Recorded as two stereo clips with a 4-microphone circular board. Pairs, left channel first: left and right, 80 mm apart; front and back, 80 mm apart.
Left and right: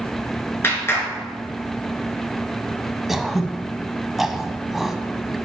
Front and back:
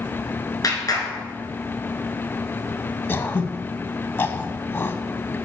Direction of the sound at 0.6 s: 35° left.